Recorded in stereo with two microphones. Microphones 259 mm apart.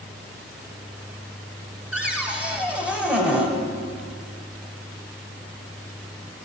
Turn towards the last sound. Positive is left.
turn(degrees=-5)  # may be behind; listen again after turning